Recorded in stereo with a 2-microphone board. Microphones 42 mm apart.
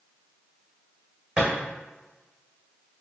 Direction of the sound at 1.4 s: 25° right (ahead or behind).